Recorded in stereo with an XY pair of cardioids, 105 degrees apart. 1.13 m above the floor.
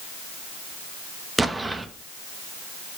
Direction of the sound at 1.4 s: 20° right.